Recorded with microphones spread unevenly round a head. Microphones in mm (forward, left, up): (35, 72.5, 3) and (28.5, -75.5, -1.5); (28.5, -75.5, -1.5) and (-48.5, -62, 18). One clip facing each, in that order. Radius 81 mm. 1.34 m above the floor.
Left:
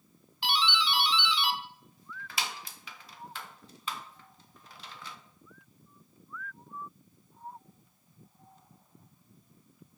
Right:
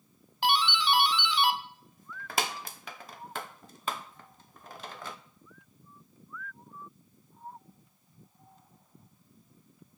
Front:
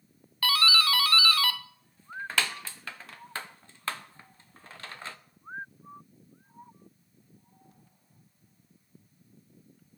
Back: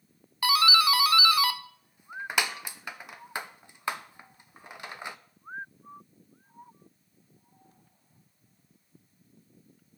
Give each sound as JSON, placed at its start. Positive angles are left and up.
{"t": 0.4, "sound": "a doorbell", "azimuth_deg": -105, "distance_m": 0.5}